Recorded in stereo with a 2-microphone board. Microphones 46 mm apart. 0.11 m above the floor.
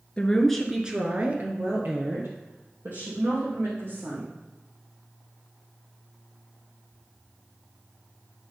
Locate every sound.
0.2 s a woman speaking: 20° left (ahead or behind), 1.6 m; by 4.3 s 60° right (ahead or behind), 5.5 m